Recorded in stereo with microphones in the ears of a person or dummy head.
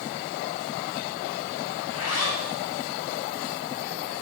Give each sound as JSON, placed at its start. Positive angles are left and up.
{"t": 1.8, "sound": "a zipper", "side_deg": 75, "distance_m": 1.6}